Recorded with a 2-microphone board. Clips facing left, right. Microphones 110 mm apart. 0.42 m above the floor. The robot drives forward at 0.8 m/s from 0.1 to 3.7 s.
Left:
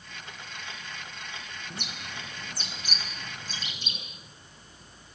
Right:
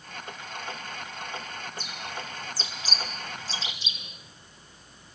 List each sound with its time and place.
1.7 s a bird: 65° left (ahead or behind), 4.5 m; by 4.0 s 50° left (ahead or behind), 5.5 m